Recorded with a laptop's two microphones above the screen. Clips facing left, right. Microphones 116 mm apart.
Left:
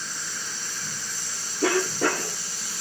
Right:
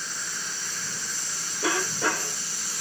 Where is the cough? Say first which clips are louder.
Left 4 dB; 55° left (ahead or behind), 2 m.